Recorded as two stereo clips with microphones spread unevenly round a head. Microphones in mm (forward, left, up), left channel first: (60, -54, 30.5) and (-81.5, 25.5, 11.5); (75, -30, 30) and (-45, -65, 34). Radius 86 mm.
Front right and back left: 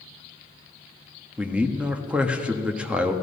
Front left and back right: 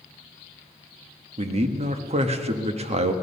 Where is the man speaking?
125° right, 1.3 m.